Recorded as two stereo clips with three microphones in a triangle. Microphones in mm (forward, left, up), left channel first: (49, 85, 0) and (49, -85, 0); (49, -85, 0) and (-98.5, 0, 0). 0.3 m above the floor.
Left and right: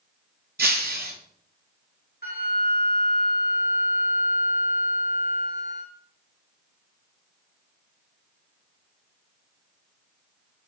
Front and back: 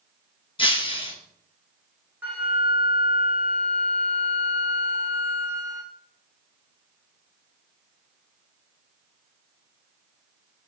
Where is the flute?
75° left, 1.0 m.